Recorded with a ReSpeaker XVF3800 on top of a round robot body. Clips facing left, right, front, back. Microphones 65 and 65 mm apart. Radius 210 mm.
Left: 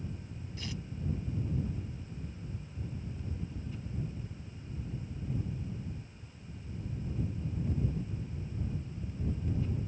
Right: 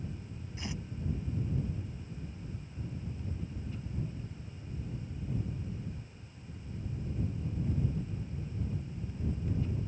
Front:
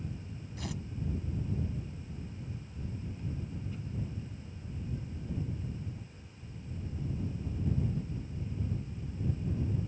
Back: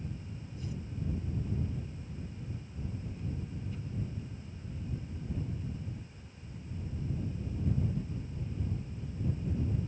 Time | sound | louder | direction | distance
0.6 | tearing paper | right 1 dB, front 2 dB | 20° right | ?